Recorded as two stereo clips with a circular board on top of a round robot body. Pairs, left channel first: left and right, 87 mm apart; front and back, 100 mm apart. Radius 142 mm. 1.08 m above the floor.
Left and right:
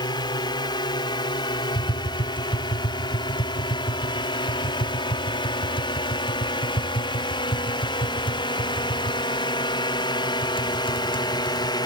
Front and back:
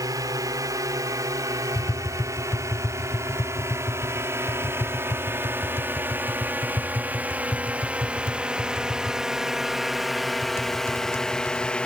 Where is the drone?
125° left; by 11.9 s 75° left.